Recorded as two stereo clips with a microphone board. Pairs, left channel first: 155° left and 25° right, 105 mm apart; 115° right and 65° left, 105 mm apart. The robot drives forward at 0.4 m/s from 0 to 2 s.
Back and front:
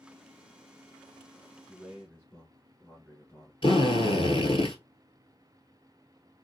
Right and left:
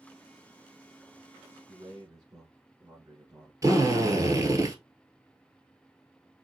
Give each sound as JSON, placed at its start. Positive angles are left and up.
{"t": 1.7, "sound": "a man speaking", "azimuth_deg": 90, "distance_m": 1.9}
{"t": 3.6, "sound": "a drill", "azimuth_deg": 125, "distance_m": 1.2}